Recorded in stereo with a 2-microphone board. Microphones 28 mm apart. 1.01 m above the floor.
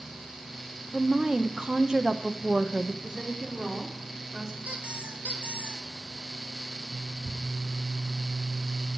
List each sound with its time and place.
0.9 s a woman speaking: 25° right (ahead or behind), 0.6 m
3.0 s a woman speaking: 25° right (ahead or behind), 2.5 m
4.7 s a squeak: 55° right (ahead or behind), 1.3 m
7.2 s ticking: 45° left (ahead or behind), 2.5 m